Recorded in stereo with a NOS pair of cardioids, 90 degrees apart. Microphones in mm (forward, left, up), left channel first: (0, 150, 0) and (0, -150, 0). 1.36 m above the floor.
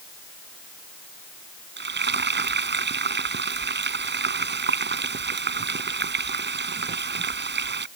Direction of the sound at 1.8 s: 35° right.